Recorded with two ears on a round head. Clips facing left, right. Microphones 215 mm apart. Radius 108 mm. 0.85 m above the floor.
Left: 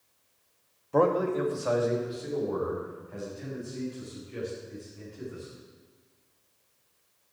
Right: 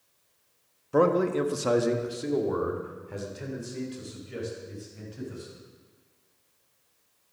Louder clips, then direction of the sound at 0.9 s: Right 2 dB; 15° right (ahead or behind).